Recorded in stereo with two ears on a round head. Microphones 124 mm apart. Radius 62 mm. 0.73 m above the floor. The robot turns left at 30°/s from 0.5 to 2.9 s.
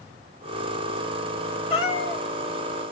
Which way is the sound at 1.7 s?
35° left (ahead or behind).